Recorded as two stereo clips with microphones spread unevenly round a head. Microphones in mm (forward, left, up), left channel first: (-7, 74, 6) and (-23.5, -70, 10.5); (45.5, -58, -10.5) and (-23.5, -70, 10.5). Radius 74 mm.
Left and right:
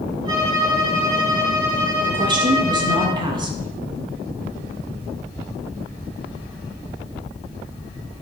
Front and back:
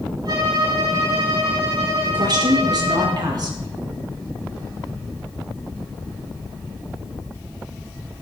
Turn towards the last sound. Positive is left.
turn(degrees=-155)